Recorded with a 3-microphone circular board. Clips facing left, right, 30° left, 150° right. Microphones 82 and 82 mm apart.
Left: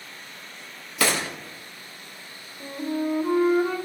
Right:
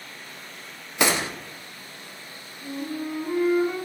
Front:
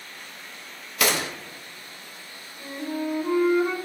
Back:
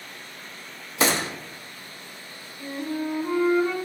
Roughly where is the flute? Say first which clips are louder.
Left 4 dB, even; behind left.